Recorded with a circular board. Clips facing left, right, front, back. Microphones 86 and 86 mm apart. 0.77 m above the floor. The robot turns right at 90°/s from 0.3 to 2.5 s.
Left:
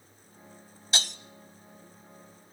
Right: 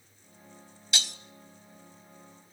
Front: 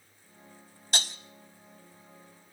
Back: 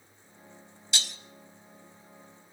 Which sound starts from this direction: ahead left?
Breaking glass, at 0.9 s.